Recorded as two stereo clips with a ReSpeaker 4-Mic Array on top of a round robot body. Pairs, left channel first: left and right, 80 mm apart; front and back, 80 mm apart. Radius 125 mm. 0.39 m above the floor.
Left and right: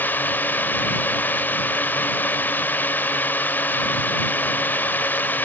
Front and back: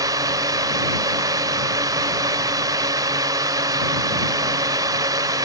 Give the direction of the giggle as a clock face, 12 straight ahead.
I don't hear a giggle.